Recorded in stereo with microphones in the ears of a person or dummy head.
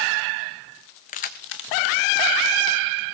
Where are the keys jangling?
35° left (ahead or behind), 0.7 m; by 3.0 s 60° left (ahead or behind), 1.4 m.